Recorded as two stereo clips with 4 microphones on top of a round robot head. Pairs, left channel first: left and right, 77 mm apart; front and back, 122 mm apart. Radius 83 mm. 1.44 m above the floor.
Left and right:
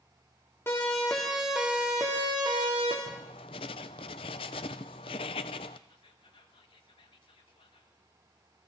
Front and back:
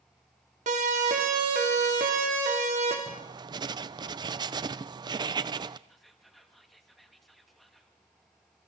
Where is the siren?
160° left, 3 m; by 3.0 s 130° right, 3 m.